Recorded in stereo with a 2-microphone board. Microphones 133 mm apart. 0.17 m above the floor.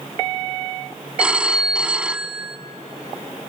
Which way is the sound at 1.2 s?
10° right (ahead or behind).